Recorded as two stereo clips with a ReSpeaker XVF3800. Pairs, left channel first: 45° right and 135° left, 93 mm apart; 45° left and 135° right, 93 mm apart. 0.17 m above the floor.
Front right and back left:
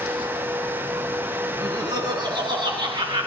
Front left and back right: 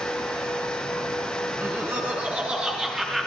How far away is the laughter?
About 2.0 m.